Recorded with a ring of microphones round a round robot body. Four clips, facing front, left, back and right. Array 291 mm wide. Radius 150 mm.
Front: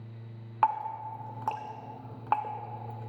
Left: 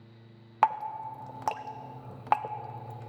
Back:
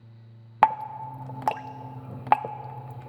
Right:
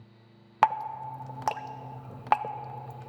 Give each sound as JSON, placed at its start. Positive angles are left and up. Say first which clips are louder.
{"t": 0.6, "sound": "dripping", "louder": "right 1 dB, back 5 dB", "azimuth_deg": -175, "distance_m": 0.6}